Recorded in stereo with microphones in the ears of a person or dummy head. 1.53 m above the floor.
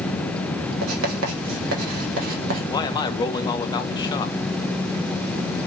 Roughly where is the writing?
Right.